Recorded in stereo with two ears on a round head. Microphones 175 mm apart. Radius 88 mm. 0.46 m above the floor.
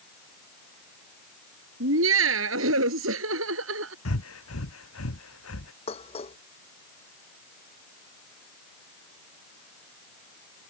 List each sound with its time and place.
1.8 s laughter: 75° right (ahead or behind)
4.0 s breathing: 85° left
5.9 s dishes clattering: 30° left (ahead or behind)